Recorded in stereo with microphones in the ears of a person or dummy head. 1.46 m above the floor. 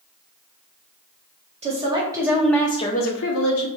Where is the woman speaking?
25° right (ahead or behind), 1.2 m; by 3.7 s 80° left, 0.8 m.